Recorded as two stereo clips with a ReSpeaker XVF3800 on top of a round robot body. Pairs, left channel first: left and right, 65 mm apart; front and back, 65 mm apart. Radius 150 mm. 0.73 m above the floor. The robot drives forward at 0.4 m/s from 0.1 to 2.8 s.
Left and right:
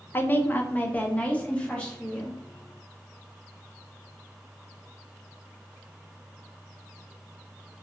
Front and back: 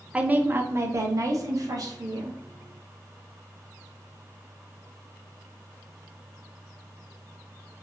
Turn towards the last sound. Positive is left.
turn(degrees=170)